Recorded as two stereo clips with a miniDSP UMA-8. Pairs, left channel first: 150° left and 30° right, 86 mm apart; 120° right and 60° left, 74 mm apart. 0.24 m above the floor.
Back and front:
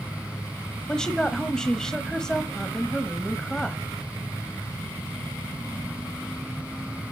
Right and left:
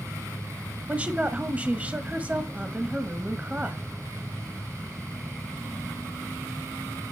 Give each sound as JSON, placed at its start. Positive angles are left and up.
{"t": 0.9, "sound": "a woman speaking", "azimuth_deg": 80, "distance_m": 1.0}